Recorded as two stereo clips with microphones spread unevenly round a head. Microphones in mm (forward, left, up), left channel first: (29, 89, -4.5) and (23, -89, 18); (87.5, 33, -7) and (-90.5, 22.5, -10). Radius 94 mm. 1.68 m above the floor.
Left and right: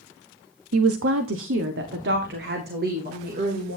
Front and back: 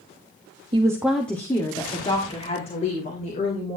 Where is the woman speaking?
110° right, 0.7 m; by 3.8 s 50° right, 2.5 m.